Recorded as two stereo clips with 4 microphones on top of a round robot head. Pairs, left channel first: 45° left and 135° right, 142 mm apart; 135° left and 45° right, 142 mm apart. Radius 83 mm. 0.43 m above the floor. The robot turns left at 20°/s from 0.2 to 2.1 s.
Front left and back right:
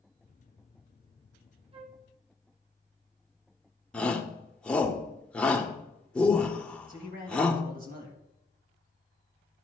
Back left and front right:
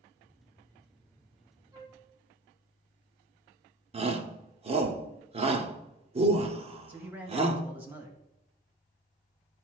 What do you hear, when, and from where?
1.7 s a flute: 100° right, 1.1 m; by 2.0 s 105° right, 1.1 m
3.9 s a shout: 35° right, 1.2 m
6.9 s a man speaking: 120° right, 2.5 m